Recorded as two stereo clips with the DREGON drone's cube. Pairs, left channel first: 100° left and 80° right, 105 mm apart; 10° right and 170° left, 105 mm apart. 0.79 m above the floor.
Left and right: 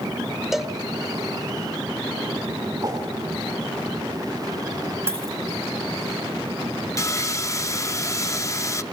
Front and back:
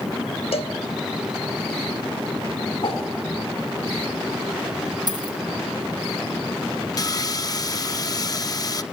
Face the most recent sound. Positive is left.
turn(degrees=35)